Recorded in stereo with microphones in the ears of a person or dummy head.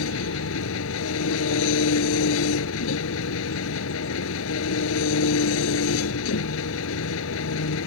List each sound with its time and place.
0.0 s an engine running: 75° left (ahead or behind)